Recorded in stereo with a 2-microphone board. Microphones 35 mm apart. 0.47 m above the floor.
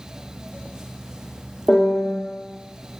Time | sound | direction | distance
1.7 | a piano | 20° left (ahead or behind) | 0.9 m